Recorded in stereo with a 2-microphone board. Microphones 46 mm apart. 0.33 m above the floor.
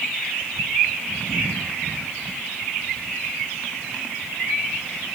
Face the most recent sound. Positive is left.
No sound to turn to.